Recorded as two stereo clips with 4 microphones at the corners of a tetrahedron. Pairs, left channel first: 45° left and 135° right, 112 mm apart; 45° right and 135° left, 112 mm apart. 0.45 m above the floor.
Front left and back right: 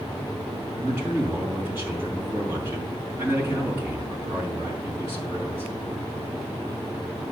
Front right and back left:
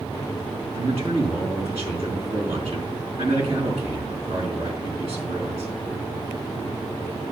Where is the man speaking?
155° left, 4.5 m.